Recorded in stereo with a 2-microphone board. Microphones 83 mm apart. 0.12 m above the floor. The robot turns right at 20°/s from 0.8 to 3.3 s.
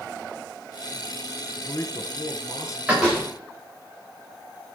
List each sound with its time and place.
1.6 s a man speaking: 35° left (ahead or behind), 1.7 m; by 2.8 s 40° left (ahead or behind), 1.7 m
2.9 s a door slam: 10° right (ahead or behind), 8 m; by 3.2 s centre (ahead or behind), 8 m